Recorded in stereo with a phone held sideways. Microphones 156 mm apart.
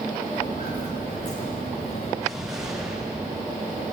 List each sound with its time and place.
0.3 s footsteps: 60° left (ahead or behind), 5 m; by 2.1 s 50° left (ahead or behind), 4.5 m
2.2 s an explosion: 5° right (ahead or behind), 8 m